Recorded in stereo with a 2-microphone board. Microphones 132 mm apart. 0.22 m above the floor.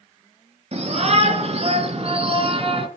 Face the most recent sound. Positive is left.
turn(degrees=-45)  # may be behind; listen again after turning